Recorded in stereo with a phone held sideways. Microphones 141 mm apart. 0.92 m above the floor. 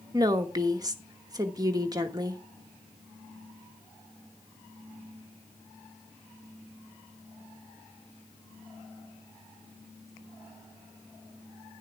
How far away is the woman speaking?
About 1.1 m.